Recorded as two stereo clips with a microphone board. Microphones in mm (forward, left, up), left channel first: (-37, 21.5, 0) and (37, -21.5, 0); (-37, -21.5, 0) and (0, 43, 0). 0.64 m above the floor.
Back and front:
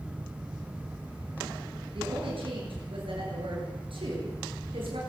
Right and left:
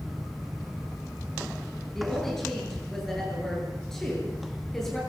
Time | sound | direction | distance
1.9 | a woman speaking | 35° right | 9 m